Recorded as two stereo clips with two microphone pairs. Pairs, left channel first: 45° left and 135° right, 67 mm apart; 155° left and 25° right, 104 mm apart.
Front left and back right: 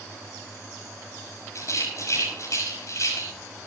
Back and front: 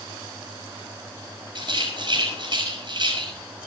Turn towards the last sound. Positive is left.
turn(degrees=10)